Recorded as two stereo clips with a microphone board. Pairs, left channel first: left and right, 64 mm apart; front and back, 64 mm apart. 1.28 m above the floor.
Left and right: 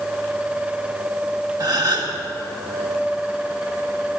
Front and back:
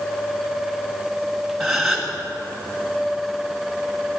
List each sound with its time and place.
1.6 s a gasp: 90° right, 1.4 m